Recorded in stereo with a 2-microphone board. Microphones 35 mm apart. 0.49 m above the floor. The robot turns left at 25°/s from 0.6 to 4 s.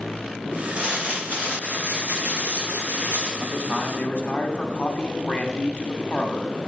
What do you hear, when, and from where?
0.8 s crumpling: 50° right, 4 m; by 3.3 s 115° right, 4 m
3.4 s a man speaking: 40° left (ahead or behind), 1.0 m